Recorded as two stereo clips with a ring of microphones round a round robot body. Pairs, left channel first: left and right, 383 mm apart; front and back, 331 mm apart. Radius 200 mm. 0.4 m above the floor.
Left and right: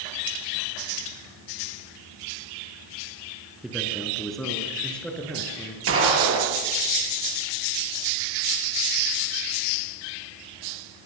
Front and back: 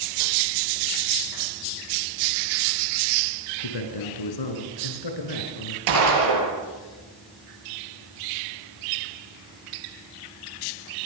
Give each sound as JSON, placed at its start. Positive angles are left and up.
{"t": 3.6, "sound": "a man speaking", "azimuth_deg": 0, "distance_m": 4.5}
{"t": 5.9, "sound": "a gunshot", "azimuth_deg": -150, "distance_m": 7.5}